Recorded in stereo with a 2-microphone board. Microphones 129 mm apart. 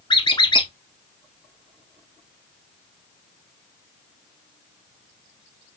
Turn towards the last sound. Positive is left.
turn(degrees=40)  # may be behind; listen again after turning